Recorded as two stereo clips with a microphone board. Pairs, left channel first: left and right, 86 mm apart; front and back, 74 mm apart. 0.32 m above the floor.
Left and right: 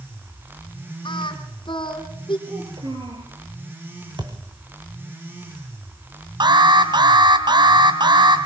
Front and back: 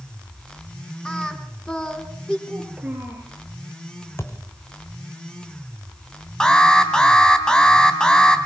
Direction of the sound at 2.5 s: 105° right.